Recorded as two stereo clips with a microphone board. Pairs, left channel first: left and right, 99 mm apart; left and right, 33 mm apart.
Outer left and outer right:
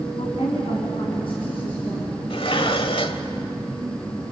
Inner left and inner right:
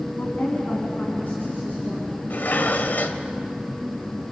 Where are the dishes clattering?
65° left (ahead or behind), 1.3 m.